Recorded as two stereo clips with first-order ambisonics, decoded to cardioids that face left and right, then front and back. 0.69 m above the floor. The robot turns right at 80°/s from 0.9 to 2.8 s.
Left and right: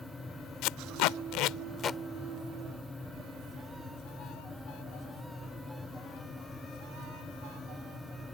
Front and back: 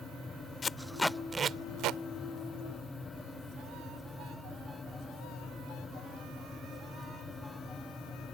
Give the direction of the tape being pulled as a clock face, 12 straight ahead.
10 o'clock.